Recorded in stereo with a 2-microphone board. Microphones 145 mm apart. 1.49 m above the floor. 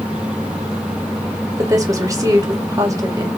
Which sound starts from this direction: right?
A woman speaking, at 1.6 s.